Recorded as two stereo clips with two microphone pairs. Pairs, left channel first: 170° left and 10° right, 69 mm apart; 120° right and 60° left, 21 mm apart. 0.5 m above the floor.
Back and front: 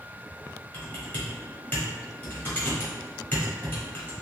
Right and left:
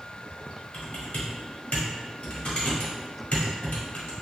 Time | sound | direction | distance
0.7 | typing on a keyboard | 125° right | 1.4 m